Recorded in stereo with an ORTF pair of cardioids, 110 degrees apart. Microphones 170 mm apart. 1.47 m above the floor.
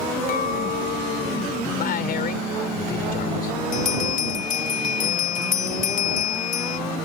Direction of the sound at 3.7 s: 50° left.